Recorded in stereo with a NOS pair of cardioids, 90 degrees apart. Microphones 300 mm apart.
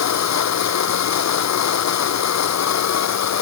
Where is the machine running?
60° left.